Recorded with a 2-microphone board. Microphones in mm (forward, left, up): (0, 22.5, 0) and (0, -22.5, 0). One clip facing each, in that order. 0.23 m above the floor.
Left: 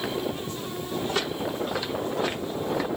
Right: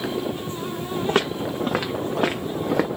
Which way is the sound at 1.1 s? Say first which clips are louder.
Right 8 dB; 50° right (ahead or behind).